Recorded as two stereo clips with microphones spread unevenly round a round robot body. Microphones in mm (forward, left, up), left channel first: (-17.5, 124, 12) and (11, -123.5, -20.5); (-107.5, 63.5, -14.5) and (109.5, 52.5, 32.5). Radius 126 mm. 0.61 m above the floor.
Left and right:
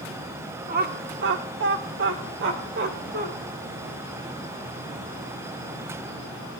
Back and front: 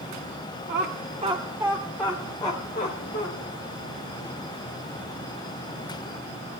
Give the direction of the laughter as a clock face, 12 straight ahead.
1 o'clock.